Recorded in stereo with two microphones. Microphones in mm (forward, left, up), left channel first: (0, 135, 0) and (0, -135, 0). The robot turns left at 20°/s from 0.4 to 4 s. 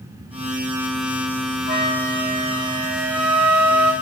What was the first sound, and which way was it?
A flute, 35° right.